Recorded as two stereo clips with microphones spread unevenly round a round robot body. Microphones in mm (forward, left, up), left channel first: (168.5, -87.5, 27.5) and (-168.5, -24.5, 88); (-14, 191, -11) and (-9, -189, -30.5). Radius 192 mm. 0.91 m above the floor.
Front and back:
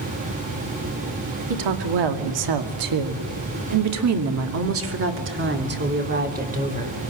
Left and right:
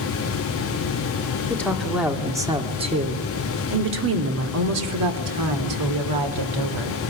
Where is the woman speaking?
175° left, 2.5 m; by 7.0 s 120° right, 3.5 m.